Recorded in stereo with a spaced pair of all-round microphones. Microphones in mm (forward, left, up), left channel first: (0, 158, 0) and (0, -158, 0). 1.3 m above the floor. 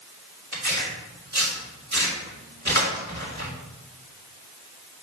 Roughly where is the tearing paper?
Right.